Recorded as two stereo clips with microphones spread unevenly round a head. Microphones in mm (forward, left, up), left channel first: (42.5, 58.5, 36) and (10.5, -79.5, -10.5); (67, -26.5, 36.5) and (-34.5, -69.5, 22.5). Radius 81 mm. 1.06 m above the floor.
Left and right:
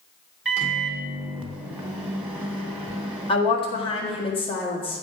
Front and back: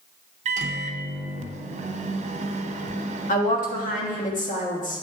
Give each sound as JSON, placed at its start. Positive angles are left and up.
{"t": 0.5, "sound": "a microwave", "azimuth_deg": 180, "distance_m": 0.8}
{"t": 3.3, "sound": "a woman speaking", "azimuth_deg": 20, "distance_m": 1.7}